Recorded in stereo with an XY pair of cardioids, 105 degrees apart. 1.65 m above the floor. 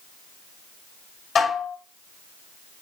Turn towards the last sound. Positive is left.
turn(degrees=55)